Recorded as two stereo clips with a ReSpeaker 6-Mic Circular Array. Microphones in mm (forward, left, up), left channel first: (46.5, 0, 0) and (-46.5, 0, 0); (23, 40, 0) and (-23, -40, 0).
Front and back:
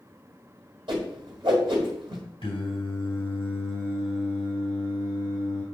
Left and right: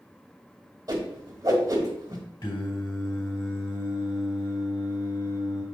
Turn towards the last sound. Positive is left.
turn(degrees=25)